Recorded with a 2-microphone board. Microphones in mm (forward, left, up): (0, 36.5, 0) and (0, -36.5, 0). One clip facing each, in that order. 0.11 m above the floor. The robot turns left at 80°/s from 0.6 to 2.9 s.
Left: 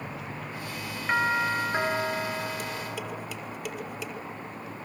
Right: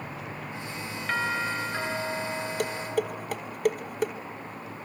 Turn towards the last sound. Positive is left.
turn(degrees=-50)  # may be behind; listen again after turning